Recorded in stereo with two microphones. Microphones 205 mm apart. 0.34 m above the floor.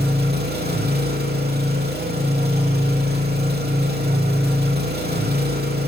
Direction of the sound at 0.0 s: 50° right (ahead or behind).